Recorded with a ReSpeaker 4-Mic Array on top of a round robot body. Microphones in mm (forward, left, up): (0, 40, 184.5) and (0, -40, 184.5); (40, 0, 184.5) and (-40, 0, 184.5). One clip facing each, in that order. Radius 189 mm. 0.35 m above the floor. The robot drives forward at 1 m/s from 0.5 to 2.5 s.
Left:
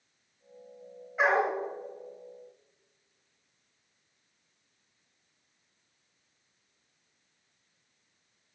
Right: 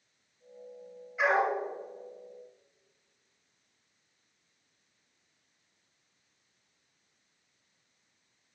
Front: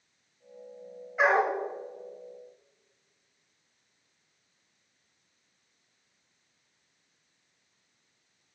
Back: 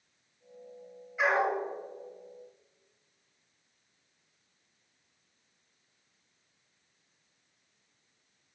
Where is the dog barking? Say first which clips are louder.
Left 1 dB, front 3 dB; 45° left, 4 m; by 1.6 s 50° left, 3.5 m.